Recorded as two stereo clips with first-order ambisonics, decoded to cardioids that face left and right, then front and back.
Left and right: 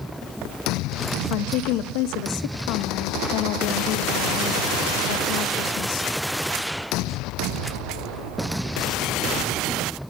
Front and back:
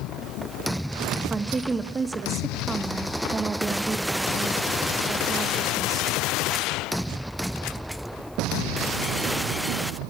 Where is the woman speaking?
105° left, 0.8 m.